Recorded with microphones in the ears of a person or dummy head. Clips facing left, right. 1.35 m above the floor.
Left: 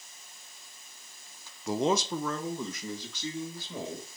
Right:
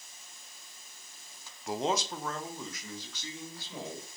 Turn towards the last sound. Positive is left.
turn(degrees=85)